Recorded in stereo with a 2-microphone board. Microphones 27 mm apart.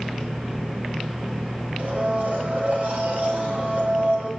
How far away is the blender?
About 5 m.